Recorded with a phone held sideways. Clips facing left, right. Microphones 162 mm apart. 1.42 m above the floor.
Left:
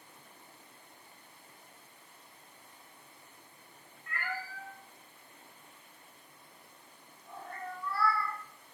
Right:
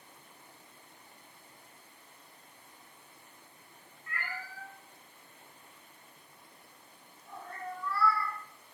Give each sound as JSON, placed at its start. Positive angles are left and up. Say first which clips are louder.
{"t": 4.1, "sound": "a cat meowing", "louder": "left 3 dB", "side_deg": 55, "distance_m": 1.3}